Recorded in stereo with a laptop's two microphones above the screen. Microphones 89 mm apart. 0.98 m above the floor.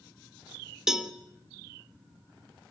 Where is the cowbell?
5° right (ahead or behind), 1.4 m.